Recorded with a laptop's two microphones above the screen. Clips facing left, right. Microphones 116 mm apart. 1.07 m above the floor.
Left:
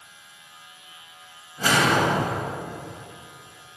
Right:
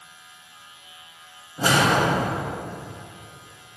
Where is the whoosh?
25° right (ahead or behind), 0.9 m.